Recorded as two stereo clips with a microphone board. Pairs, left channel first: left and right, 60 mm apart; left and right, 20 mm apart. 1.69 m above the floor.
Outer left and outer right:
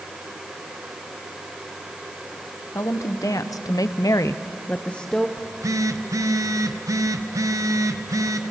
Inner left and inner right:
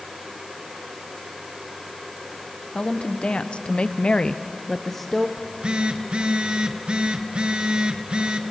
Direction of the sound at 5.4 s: 65° right (ahead or behind).